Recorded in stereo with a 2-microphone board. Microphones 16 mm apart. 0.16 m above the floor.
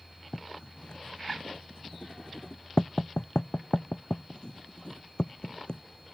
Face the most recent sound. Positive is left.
turn(degrees=65)  # may be behind; listen again after turning